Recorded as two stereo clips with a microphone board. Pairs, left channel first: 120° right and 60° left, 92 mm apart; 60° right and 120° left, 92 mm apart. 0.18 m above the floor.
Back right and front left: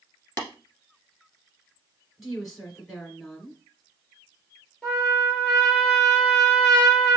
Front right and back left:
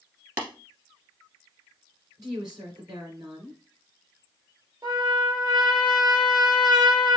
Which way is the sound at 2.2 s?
150° left.